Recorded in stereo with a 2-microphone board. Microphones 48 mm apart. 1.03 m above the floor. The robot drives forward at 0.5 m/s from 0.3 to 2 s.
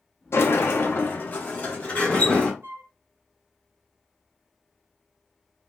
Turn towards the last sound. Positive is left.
turn(degrees=-60)  # may be behind; listen again after turning